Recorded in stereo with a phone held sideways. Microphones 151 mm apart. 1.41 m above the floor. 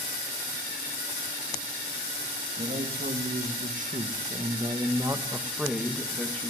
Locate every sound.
2.6 s a man speaking: 80° right, 2.5 m; by 6.5 s 10° left (ahead or behind), 2.5 m